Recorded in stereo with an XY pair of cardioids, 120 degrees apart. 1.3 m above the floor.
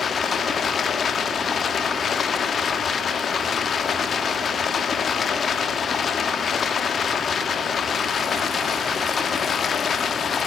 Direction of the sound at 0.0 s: 35° left.